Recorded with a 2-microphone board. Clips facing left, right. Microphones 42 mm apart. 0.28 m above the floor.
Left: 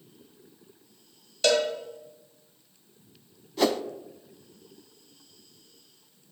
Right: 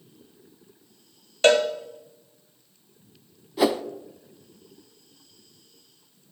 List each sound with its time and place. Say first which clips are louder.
1.4 s a cowbell: right 5 dB; 40° right (ahead or behind), 1.3 m
3.6 s a whoosh: right 3 dB; 10° right (ahead or behind), 0.5 m